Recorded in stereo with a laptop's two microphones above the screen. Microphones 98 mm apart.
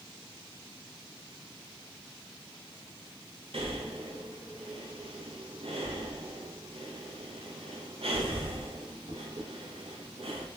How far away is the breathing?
About 0.5 m.